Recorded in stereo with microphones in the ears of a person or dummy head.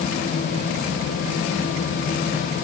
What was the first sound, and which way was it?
Only background noise.